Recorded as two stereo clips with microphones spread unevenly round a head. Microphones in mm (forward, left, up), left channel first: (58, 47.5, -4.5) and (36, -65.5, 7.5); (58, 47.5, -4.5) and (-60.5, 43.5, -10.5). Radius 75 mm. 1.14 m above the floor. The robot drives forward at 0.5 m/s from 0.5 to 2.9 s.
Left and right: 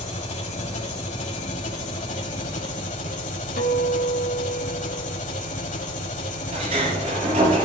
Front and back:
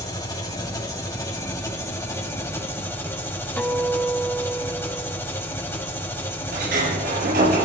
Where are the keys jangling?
No keys jangling in this recording.